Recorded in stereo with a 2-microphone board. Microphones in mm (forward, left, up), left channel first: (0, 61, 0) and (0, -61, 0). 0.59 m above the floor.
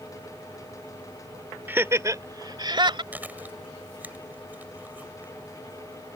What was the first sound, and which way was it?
Laughter, 15° right (ahead or behind).